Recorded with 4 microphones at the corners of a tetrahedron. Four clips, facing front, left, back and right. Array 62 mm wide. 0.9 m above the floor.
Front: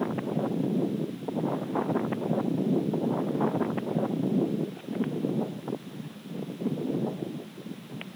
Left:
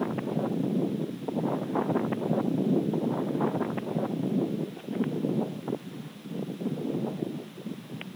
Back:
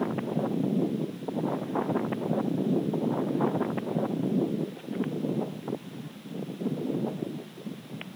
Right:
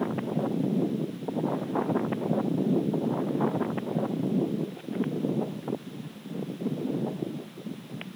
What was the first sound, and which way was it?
Only background noise.